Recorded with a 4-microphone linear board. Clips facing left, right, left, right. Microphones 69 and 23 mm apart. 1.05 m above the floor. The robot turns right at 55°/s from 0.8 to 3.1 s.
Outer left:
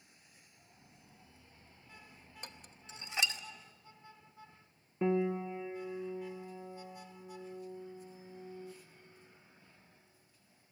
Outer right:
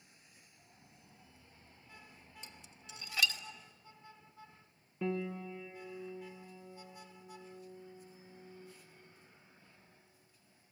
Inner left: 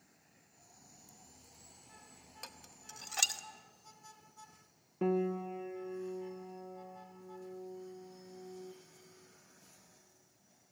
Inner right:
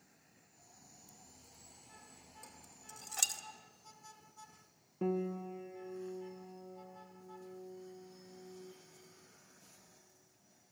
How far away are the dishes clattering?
About 0.9 m.